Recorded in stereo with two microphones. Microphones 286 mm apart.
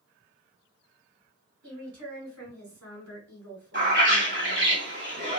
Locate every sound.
1.6 s a woman speaking: 75° right (ahead or behind), 2 m
3.7 s a bird: 40° right (ahead or behind), 2.5 m